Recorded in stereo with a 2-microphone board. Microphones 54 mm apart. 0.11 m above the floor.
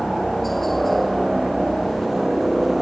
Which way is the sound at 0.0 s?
5° left (ahead or behind).